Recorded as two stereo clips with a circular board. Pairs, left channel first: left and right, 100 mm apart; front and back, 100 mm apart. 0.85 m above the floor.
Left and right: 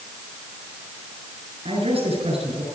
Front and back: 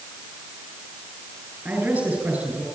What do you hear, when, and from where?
1.6 s a man speaking: 105° right, 7.5 m